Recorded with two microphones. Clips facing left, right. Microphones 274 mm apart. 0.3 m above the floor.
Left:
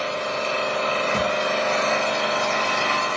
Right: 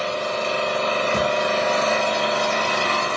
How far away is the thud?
About 1.4 m.